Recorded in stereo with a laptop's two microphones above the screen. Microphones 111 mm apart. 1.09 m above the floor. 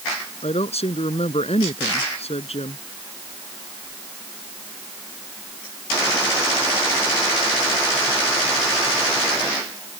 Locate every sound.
0.4 s a woman speaking: 70° left (ahead or behind)